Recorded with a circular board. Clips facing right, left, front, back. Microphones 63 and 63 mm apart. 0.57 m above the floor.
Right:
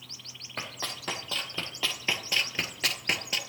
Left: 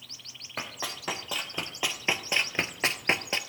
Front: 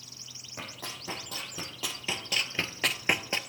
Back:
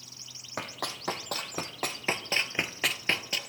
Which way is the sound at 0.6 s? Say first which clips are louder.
Left 1 dB, back 5 dB; 170° left.